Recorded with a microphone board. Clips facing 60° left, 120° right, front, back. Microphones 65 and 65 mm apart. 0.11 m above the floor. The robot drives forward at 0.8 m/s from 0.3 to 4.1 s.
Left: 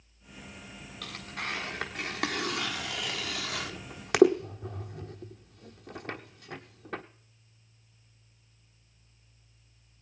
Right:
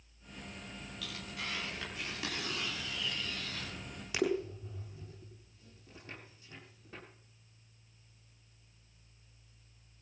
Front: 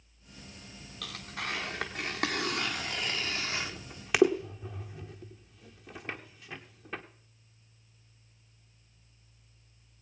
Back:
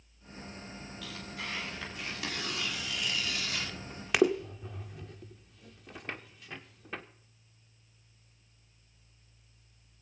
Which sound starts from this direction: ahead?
Tearing paper, at 1.0 s.